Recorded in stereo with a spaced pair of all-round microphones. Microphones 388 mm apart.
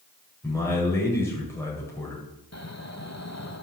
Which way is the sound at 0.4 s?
5° left (ahead or behind).